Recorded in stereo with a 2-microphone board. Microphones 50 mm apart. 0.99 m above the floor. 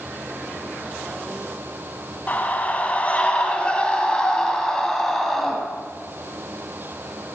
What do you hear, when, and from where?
2.3 s a scream: 35° left (ahead or behind), 6 m; by 5.6 s 5° left (ahead or behind), 5.5 m